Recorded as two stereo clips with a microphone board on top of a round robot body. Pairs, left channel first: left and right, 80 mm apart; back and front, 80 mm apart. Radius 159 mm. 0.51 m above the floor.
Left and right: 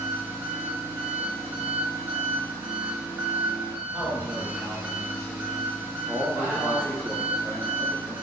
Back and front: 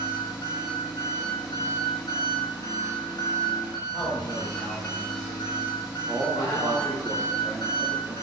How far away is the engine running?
About 0.8 m.